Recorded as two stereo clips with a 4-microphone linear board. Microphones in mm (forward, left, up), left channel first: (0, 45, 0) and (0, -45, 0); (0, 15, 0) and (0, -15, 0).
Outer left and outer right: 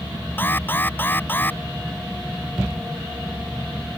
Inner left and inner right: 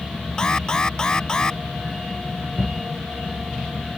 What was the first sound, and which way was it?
An alarm, 20° left (ahead or behind).